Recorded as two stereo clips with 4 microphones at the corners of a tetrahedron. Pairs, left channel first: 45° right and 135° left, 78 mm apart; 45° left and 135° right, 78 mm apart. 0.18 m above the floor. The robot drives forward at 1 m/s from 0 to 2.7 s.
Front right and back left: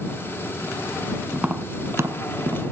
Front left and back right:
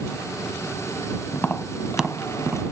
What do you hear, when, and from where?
1.3 s tapping: 65° left, 0.8 m; by 2.6 s 165° left, 1.4 m